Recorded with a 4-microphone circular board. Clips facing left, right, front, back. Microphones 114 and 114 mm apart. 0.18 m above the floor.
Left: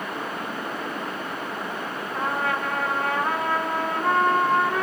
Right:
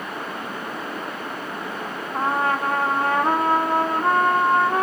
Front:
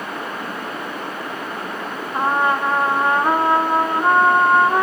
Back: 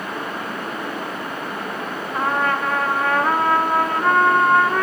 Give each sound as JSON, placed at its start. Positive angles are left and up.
{"t": 2.1, "sound": "a trumpet", "azimuth_deg": -60, "distance_m": 0.6}